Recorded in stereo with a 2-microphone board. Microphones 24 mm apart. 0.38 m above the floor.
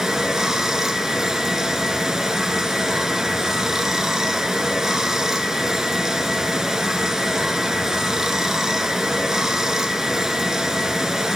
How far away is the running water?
About 1.0 m.